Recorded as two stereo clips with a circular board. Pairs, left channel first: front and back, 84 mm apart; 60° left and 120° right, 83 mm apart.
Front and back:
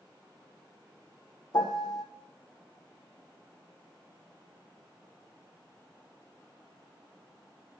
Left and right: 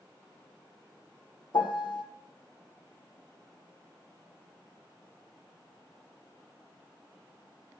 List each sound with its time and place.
1.5 s a piano: 35° left, 0.8 m